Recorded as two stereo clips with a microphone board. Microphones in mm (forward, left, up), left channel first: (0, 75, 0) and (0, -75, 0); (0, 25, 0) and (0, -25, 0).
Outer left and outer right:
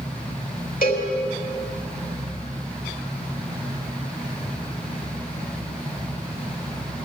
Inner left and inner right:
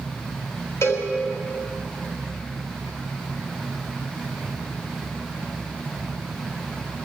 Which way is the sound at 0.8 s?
75° left (ahead or behind).